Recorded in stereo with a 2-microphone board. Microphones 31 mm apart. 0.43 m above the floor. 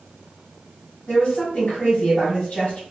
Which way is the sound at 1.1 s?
50° left (ahead or behind).